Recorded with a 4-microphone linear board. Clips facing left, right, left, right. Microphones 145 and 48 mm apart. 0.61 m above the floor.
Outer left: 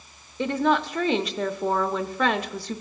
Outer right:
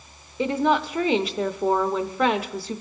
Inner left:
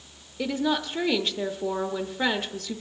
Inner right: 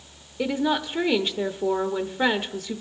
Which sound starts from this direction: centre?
A woman speaking, at 0.4 s.